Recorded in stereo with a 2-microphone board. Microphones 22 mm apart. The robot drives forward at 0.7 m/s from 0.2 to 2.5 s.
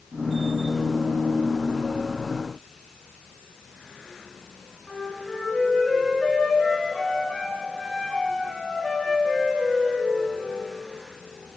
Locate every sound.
4.9 s a flute: 45° left (ahead or behind), 1.8 m